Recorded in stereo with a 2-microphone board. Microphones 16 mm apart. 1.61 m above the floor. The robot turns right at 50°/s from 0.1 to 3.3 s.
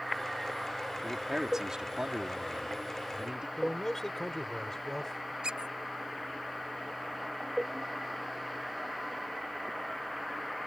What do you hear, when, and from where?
1.0 s a man speaking: 170° right; by 3.5 s 55° right
3.6 s a man speaking: 30° left (ahead or behind)
5.4 s a squeak: 75° right (ahead or behind)